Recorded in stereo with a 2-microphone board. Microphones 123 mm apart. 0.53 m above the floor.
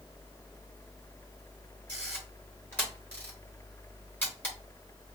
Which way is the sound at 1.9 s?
15° left (ahead or behind).